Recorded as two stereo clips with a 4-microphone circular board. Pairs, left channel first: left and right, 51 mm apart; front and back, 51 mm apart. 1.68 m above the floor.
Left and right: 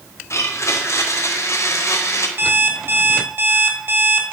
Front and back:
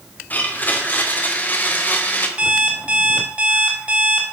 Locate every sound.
0.3 s a blender: 60° left, 1.3 m
2.4 s an alarm clock: 120° right, 1.7 m